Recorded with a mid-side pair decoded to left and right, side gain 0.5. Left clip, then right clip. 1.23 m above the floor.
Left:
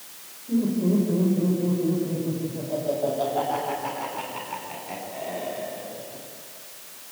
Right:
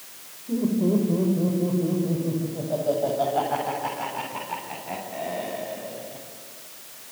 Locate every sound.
0.5 s laughter: 25° right, 5.5 m; by 6.2 s 30° right, 11.5 m